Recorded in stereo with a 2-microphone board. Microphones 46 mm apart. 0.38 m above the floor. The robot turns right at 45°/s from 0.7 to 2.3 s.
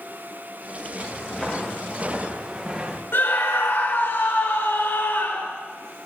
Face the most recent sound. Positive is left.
turn(degrees=65)  # may be behind; listen again after turning